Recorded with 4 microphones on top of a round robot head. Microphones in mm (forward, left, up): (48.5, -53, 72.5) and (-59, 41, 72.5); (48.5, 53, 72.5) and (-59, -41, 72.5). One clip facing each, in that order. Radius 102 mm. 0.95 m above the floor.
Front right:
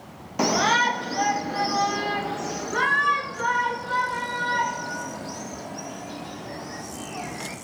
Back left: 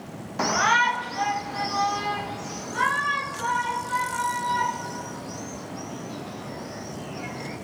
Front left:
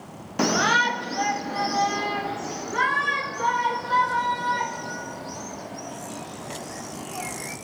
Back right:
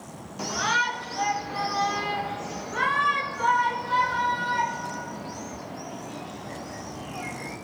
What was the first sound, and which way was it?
A shout, 30° left.